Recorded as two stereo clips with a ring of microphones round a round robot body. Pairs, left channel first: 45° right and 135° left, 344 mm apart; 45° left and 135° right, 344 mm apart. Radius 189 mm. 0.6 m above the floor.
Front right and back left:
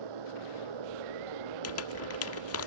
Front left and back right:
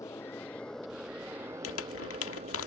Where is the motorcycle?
125° left; by 2.7 s 155° left.